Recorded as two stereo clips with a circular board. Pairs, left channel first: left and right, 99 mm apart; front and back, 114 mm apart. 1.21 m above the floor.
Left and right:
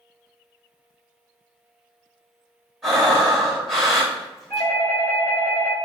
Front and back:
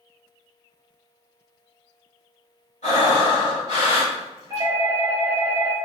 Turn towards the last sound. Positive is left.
turn(degrees=140)